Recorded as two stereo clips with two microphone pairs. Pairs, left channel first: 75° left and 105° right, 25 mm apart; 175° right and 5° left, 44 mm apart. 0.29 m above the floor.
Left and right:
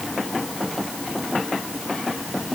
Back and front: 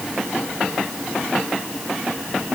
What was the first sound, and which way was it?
Only background noise.